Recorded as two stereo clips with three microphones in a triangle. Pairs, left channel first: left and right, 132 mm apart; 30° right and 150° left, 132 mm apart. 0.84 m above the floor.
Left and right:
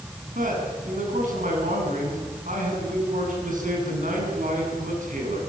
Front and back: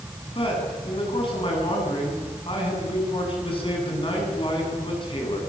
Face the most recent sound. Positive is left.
turn(degrees=-80)